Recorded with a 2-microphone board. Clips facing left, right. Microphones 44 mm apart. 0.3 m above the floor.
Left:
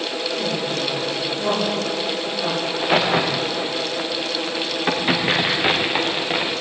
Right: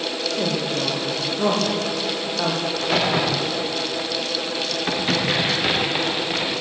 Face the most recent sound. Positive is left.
turn(degrees=15)  # may be behind; listen again after turning